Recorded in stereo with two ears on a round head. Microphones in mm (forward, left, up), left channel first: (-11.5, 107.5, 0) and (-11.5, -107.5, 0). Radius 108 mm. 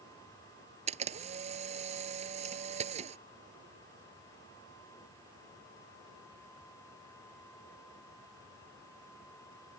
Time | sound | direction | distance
0.9 | a camera shutter | 30° right (ahead or behind) | ?